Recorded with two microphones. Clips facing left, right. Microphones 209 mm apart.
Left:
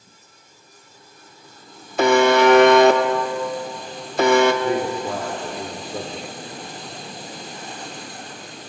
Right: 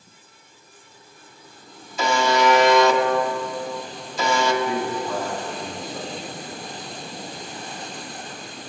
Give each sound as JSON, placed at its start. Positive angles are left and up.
{"t": 2.0, "sound": "a buzzer", "side_deg": 60, "distance_m": 0.9}
{"t": 4.6, "sound": "a man speaking", "side_deg": 50, "distance_m": 2.0}